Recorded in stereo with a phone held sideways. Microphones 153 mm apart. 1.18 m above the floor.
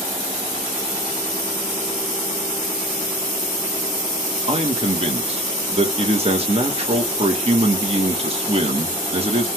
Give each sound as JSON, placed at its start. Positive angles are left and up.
{"t": 4.5, "sound": "a man speaking", "side_deg": -40, "distance_m": 1.3}